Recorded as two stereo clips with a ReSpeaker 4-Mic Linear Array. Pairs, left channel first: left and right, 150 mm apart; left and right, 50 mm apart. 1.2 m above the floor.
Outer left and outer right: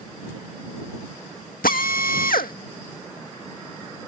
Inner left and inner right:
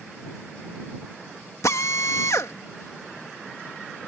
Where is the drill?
70° left (ahead or behind).